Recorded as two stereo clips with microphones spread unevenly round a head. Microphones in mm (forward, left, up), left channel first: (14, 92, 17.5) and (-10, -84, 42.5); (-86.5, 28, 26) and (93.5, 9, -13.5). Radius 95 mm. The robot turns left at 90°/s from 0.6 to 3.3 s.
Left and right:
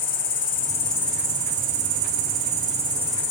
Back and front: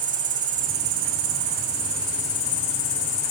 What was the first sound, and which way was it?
An insect, 40° left.